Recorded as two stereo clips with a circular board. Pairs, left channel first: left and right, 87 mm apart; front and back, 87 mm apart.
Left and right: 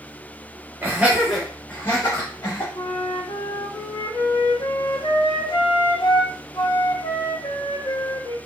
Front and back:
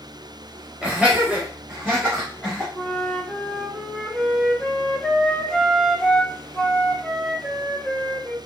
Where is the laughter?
110° right, 1.0 m; by 2.6 s 105° left, 1.3 m.